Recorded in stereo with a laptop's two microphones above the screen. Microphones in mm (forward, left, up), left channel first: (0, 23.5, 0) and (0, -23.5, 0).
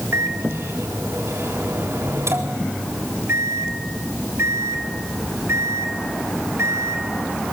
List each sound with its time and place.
0.1 s a microwave: 65° right (ahead or behind), 3.5 m